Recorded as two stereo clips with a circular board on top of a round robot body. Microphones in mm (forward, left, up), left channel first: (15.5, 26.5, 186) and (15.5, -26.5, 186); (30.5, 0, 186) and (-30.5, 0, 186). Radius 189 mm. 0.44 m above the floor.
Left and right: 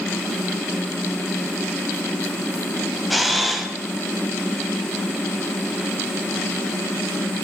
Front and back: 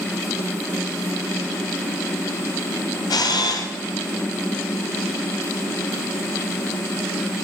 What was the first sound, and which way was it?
A camera shutter, 5° right.